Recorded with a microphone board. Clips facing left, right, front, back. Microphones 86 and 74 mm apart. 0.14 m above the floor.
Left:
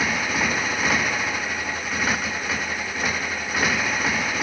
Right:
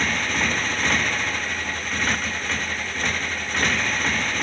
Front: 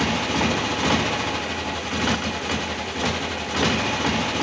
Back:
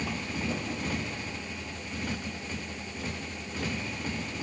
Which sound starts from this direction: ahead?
A motorcycle, at 0.0 s.